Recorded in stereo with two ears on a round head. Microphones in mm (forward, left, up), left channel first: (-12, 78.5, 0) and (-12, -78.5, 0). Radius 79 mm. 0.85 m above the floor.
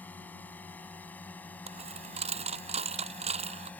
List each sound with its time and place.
0.0 s a drone: 10° left (ahead or behind)
1.7 s a dropped coin: 35° right (ahead or behind)